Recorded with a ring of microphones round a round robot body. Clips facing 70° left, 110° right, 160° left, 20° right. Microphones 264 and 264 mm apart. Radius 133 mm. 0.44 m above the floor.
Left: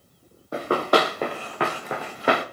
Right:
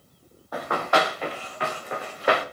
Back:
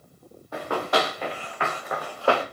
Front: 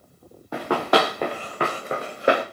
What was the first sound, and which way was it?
Running footsteps, 5° left.